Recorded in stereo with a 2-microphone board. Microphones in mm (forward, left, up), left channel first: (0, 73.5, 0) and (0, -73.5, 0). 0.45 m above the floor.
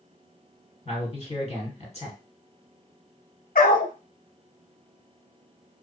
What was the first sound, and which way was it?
A man speaking, 45° left (ahead or behind).